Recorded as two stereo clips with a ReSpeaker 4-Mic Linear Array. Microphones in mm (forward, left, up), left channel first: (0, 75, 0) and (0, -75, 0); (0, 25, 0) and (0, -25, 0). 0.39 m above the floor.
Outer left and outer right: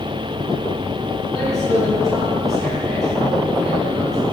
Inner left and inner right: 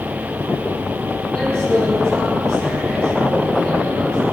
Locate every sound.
1.3 s a man speaking: centre (ahead or behind), 4.5 m